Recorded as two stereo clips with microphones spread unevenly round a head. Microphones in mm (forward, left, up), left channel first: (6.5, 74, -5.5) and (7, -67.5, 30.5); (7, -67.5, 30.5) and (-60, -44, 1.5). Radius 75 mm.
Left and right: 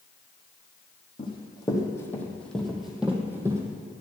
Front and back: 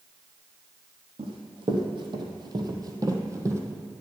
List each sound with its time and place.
1.2 s running footsteps: 155° left, 2 m; by 3.6 s 140° right, 1.9 m